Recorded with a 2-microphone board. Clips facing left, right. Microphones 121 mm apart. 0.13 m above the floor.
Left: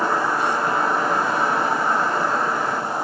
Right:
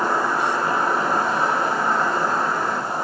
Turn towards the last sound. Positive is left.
turn(degrees=0)  # may be behind; listen again after turning